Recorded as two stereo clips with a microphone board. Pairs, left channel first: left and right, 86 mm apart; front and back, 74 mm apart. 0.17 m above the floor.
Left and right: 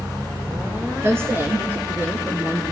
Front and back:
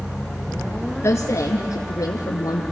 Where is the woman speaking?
45° right, 2 m; by 2.6 s 15° right, 2.5 m.